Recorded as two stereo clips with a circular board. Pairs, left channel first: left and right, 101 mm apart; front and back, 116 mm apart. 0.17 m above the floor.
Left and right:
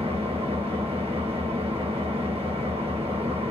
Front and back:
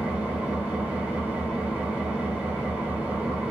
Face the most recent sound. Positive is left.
turn(degrees=-105)